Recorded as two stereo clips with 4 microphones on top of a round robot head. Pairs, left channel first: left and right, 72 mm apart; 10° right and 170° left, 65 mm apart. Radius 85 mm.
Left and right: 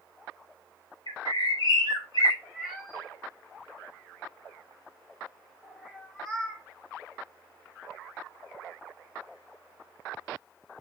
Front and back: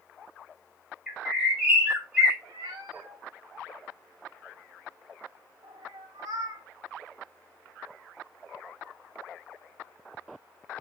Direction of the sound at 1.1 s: 95° left.